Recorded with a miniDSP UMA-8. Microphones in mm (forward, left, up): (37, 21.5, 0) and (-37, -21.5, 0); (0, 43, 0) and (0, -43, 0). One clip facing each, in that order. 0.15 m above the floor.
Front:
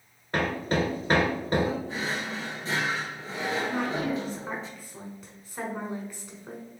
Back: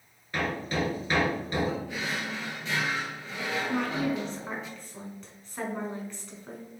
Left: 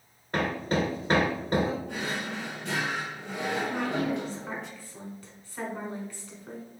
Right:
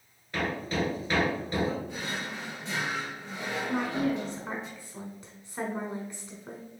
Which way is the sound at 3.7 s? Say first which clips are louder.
Even, even; 45° right.